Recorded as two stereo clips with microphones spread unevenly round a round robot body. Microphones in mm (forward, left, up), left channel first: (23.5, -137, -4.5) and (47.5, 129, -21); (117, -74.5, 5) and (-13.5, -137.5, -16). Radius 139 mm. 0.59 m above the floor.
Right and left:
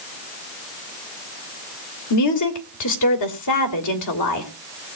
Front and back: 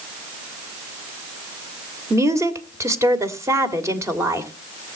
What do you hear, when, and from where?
2.1 s a woman speaking: 90° right, 2.5 m